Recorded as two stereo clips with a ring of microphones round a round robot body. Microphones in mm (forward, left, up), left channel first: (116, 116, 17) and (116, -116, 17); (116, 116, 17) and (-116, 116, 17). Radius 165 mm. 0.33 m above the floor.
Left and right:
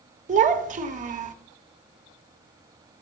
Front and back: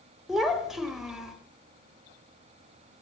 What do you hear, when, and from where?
0.3 s a child speaking: 95° right, 0.8 m